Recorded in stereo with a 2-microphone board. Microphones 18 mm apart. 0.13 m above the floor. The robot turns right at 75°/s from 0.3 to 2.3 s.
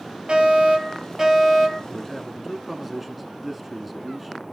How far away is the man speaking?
About 1.1 m.